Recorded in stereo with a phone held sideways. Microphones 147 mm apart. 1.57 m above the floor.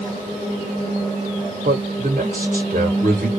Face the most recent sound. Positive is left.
turn(degrees=-85)